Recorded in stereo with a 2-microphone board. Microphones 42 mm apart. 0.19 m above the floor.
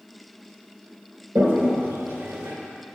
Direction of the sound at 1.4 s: 65° right (ahead or behind).